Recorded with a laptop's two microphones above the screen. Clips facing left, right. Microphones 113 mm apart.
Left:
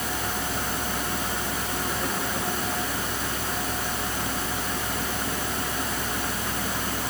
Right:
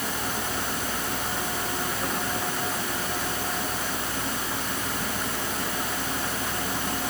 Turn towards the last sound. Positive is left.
No sound to turn to.